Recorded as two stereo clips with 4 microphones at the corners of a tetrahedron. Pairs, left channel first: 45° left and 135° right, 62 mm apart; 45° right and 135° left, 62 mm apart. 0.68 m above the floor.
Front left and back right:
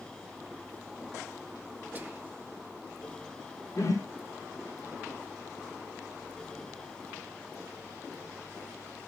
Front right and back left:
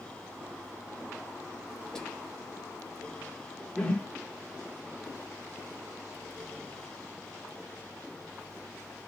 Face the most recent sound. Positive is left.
turn(degrees=25)